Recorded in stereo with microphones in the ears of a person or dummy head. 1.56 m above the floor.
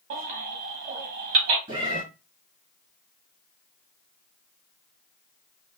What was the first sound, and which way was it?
A baby crying, 45° right (ahead or behind).